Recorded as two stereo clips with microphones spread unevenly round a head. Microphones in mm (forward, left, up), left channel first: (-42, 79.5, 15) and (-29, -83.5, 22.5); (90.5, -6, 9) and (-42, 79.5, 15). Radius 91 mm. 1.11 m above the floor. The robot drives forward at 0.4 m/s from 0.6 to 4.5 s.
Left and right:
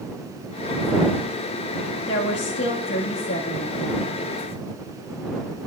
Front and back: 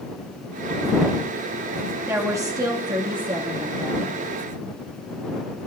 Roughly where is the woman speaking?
Left.